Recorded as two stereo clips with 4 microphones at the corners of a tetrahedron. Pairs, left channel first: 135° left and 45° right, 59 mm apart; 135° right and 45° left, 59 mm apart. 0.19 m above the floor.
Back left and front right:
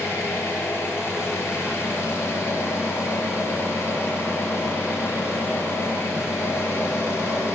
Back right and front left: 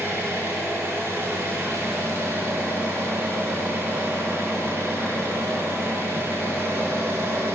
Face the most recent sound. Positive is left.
turn(degrees=95)